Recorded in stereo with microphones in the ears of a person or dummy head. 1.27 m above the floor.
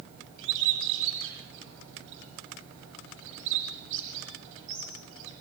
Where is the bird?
75° right (ahead or behind), 8 m.